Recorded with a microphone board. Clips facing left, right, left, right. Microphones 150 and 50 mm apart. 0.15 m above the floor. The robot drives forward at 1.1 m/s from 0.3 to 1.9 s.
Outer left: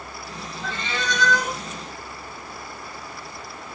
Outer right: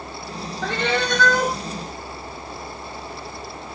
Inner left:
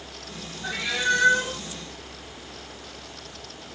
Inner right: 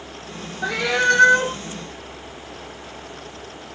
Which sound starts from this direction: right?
A cat meowing, at 0.6 s.